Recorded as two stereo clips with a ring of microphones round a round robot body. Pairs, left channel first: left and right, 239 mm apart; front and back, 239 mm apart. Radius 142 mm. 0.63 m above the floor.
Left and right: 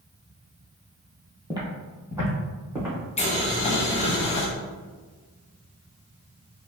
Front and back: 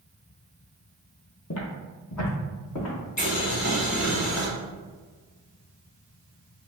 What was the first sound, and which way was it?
Footsteps, 20° right.